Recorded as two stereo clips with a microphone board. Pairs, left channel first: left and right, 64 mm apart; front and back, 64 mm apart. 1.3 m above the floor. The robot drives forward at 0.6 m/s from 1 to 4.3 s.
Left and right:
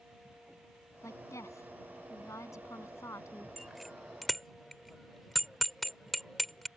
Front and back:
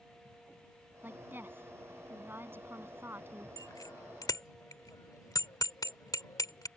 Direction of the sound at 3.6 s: Straight ahead.